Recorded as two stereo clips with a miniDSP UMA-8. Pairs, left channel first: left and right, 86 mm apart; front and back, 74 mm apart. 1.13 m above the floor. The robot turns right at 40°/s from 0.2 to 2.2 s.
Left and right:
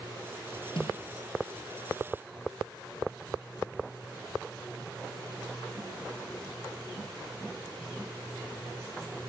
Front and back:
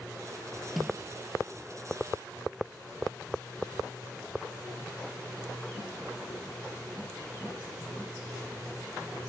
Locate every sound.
0.8 s a snare drum: 90° left; by 1.0 s 100° left